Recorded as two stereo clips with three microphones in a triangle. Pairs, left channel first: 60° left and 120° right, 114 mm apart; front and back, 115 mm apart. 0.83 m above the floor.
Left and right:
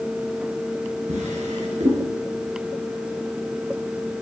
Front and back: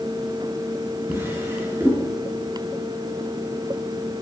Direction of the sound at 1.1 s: 110° right.